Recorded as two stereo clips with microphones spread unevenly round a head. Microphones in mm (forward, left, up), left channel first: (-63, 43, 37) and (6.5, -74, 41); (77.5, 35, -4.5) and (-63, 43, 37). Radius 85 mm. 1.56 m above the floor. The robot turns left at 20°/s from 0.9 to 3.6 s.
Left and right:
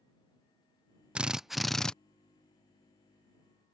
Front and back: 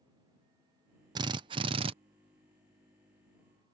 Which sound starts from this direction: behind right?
A drill, at 1.1 s.